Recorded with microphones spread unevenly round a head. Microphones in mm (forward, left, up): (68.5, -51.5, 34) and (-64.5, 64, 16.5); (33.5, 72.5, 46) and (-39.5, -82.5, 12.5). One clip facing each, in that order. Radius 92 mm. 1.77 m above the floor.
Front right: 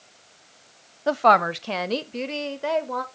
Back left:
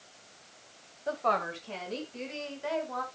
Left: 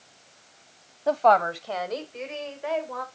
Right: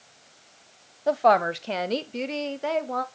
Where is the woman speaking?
25° right, 0.7 m; by 3.0 s 75° right, 1.6 m.